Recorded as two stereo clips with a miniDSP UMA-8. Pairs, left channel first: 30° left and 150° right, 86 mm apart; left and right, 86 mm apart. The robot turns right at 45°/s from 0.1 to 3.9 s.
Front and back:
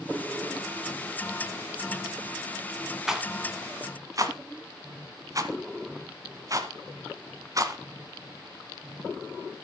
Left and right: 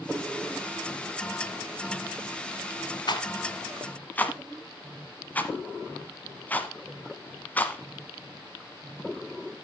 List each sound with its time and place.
3.1 s a rattle: 125° left, 1.4 m; by 7.8 s 160° left, 1.4 m